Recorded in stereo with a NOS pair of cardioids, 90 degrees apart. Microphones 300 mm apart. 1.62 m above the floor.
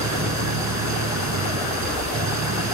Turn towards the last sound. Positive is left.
turn(degrees=-65)